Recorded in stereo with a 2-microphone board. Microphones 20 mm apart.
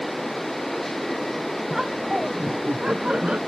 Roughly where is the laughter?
Right.